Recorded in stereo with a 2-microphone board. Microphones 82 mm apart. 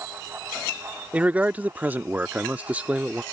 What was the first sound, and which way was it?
A man speaking, 15° right (ahead or behind).